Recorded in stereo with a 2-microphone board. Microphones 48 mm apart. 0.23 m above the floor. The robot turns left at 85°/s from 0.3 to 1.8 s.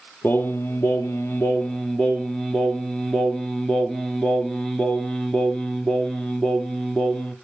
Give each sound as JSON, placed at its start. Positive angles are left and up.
{"t": 0.2, "sound": "singing", "azimuth_deg": 140, "distance_m": 1.0}